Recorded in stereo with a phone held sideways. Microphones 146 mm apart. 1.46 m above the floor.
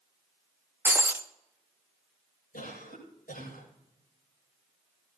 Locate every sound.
0.8 s breaking glass: 15° right (ahead or behind), 0.9 m
2.5 s a cough: 80° left, 9 m